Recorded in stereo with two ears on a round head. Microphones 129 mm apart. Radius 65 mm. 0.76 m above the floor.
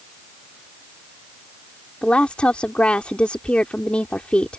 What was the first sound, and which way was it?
A woman speaking, 10° left (ahead or behind).